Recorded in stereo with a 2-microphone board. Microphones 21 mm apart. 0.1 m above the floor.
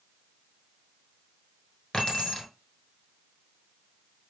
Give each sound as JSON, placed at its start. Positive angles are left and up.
{"t": 1.9, "sound": "keys jangling", "side_deg": 35, "distance_m": 1.1}